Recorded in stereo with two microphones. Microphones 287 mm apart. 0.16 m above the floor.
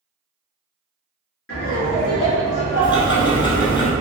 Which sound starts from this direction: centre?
Ticking, at 2.8 s.